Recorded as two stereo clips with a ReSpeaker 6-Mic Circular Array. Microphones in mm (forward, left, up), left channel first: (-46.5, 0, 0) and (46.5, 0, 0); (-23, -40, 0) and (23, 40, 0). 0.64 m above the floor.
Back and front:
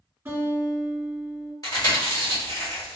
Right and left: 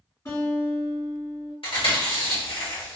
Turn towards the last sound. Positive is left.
turn(degrees=-130)